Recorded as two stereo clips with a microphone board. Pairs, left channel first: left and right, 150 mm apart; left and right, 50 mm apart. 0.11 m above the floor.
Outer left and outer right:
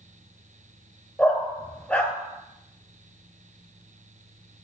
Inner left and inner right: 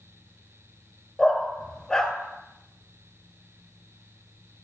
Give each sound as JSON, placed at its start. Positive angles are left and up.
{"t": 1.2, "sound": "a dog barking", "side_deg": 10, "distance_m": 0.8}